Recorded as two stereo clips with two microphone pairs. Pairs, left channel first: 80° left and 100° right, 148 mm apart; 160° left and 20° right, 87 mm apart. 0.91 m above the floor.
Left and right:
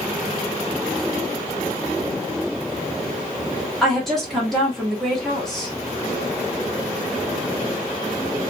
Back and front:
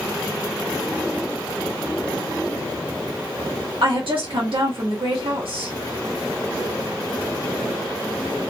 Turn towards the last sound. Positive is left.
turn(degrees=-10)